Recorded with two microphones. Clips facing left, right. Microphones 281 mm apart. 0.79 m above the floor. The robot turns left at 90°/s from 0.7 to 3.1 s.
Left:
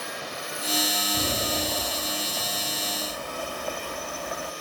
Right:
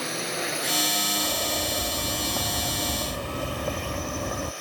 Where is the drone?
70° right (ahead or behind); by 4.6 s 40° left (ahead or behind).